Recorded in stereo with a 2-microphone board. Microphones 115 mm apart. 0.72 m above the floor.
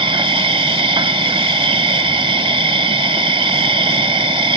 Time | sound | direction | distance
0.0 | an insect | 50° right (ahead or behind) | ?